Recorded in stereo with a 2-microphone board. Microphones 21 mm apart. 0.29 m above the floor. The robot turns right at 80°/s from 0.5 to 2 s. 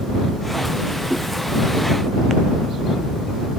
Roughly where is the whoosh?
Centre.